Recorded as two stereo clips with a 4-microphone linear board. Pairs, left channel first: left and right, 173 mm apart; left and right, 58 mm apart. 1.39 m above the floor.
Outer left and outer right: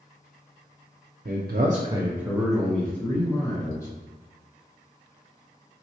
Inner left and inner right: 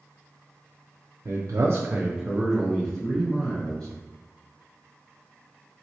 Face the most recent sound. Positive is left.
turn(degrees=15)  # may be behind; listen again after turning